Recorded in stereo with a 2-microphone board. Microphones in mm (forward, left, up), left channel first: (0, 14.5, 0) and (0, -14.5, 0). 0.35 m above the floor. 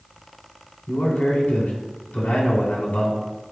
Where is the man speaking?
60° left (ahead or behind), 2.5 m.